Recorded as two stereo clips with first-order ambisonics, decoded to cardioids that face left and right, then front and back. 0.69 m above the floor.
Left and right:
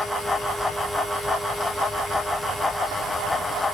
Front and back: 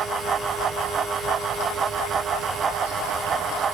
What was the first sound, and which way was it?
Only background noise.